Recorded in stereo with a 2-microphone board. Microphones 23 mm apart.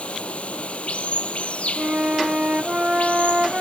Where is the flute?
40° right (ahead or behind).